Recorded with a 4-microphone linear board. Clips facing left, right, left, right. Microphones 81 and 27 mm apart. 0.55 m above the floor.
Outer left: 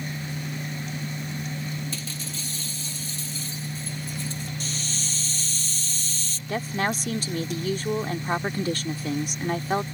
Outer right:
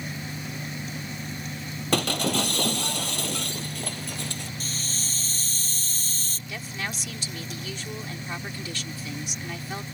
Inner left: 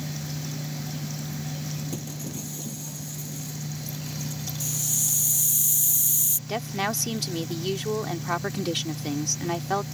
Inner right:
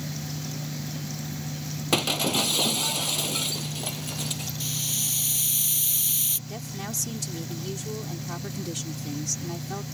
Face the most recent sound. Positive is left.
turn(degrees=45)  # may be behind; listen again after turning